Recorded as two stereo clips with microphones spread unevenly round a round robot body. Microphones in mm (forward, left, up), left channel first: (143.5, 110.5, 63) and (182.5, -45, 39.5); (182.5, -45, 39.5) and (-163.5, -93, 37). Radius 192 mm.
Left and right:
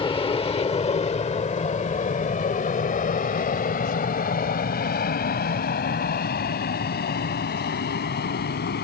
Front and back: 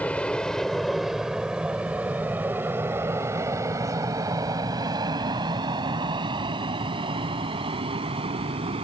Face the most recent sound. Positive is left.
turn(degrees=115)